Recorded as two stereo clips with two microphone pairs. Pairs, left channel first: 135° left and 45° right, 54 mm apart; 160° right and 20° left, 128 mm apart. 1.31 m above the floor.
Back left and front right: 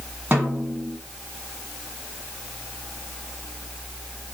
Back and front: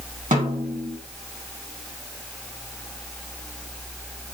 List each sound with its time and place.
0.3 s a snare drum: 15° left, 1.8 m